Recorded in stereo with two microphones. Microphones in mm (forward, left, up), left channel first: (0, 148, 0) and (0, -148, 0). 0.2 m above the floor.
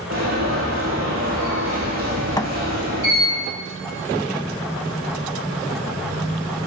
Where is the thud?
15° left (ahead or behind), 0.5 m.